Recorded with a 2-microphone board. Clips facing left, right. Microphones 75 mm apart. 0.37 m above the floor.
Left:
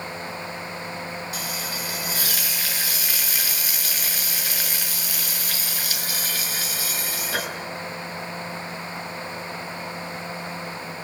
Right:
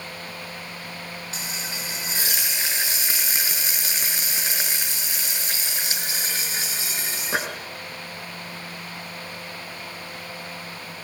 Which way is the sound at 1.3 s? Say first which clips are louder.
Left 3 dB; 25° right (ahead or behind).